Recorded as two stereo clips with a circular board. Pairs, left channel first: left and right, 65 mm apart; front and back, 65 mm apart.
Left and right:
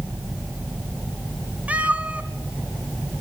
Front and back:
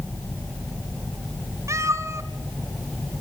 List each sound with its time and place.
1.7 s a cat meowing: 150° right, 2 m